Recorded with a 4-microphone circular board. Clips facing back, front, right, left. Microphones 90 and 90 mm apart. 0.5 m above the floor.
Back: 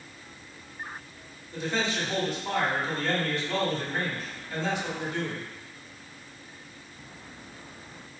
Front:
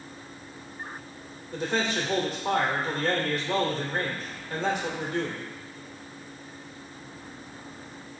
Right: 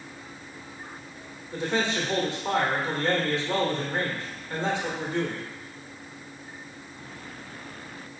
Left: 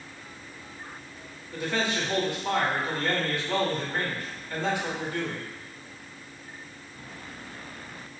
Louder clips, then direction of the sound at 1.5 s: Front 2 dB, right 2 dB; 30° right.